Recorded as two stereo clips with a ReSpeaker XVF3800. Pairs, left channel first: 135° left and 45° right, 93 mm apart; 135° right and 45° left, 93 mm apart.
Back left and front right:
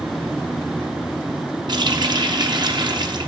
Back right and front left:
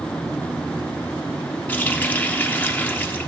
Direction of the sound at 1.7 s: 70° right.